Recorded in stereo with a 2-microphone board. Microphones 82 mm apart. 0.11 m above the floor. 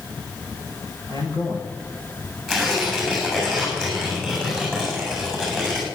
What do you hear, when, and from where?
1.1 s a man speaking: 65° left (ahead or behind), 7 m
2.5 s tearing paper: 5° left (ahead or behind), 8.5 m